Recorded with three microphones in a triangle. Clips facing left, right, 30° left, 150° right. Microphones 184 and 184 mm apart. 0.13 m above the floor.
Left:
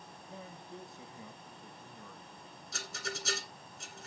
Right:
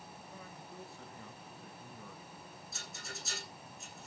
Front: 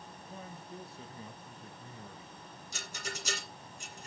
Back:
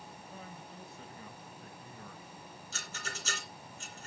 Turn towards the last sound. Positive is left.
turn(degrees=105)